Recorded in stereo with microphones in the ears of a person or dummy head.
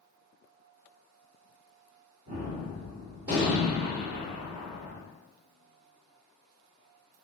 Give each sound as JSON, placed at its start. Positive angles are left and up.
{"t": 2.3, "sound": "a gunshot", "side_deg": -20, "distance_m": 1.8}